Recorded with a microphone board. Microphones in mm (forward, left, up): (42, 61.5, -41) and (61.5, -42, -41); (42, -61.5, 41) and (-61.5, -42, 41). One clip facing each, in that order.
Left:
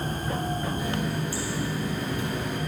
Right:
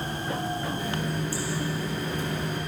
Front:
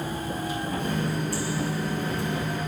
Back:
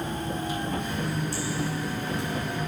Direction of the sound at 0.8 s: 25° left.